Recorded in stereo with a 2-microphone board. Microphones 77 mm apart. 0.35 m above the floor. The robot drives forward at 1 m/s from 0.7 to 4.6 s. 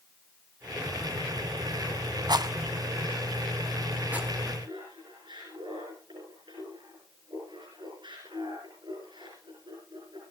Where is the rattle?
65° right (ahead or behind), 0.8 m; by 4.3 s 20° right (ahead or behind), 2.5 m.